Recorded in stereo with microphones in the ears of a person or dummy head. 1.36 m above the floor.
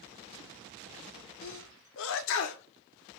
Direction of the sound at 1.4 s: 65° left (ahead or behind).